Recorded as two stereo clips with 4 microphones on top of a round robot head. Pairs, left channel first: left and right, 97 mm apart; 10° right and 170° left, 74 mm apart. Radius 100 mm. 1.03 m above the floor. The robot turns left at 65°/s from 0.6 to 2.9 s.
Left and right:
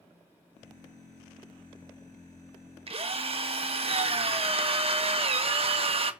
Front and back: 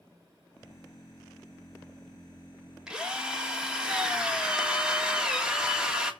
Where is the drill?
110° right, 1.6 m.